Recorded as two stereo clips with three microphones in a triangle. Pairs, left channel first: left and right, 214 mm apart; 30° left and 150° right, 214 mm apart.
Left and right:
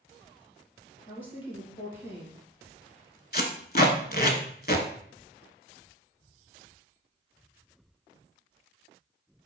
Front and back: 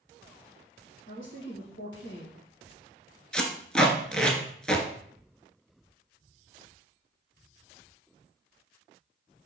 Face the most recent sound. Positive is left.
turn(degrees=115)